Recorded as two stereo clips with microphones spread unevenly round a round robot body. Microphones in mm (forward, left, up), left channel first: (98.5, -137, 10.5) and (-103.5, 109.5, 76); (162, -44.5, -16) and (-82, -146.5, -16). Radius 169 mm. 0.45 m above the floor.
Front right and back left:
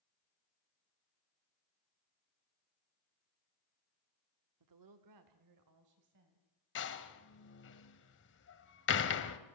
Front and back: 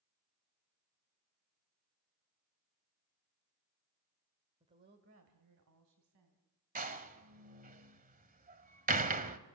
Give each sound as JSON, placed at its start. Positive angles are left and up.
{"t": 4.6, "sound": "a woman speaking", "azimuth_deg": 135, "distance_m": 1.4}
{"t": 6.8, "sound": "a door slam", "azimuth_deg": -100, "distance_m": 1.6}